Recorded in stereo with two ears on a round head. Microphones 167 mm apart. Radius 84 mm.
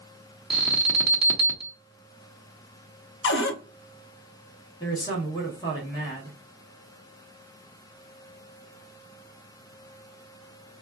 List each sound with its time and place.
0.5 s an alarm: 5° right (ahead or behind), 0.7 m
3.2 s a cupboard door: 65° left (ahead or behind), 0.6 m
4.8 s a man speaking: 20° left (ahead or behind), 1.1 m